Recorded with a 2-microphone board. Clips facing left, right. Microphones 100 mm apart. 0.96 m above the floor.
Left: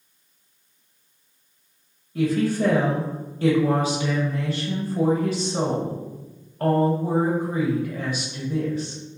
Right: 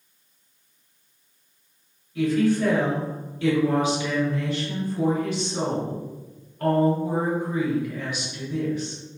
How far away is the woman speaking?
About 0.6 m.